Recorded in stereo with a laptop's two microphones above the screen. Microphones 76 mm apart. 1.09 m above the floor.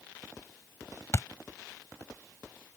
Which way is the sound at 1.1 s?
40° left (ahead or behind).